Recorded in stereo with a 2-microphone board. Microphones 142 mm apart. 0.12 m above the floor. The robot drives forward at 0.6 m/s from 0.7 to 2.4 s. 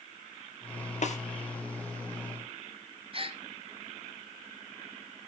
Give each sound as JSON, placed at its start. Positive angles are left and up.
{"t": 1.0, "sound": "a snare drum", "side_deg": 55, "distance_m": 1.7}
{"t": 3.1, "sound": "a gasp", "side_deg": -40, "distance_m": 1.0}